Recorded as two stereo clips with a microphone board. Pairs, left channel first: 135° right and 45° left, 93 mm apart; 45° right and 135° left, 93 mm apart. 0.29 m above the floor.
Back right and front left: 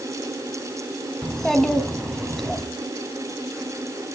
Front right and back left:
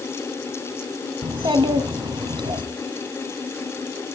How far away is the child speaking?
About 1.6 m.